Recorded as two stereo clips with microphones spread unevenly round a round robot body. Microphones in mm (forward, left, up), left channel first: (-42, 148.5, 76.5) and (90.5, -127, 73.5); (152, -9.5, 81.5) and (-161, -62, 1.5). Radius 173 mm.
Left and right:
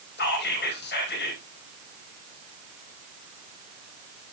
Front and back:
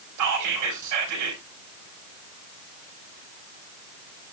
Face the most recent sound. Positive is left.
turn(degrees=170)